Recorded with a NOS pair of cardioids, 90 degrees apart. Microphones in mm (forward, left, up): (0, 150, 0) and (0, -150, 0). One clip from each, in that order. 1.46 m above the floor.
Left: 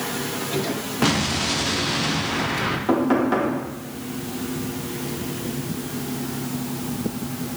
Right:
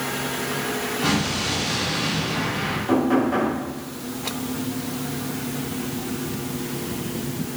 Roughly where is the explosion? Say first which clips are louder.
Left 3 dB; ahead left.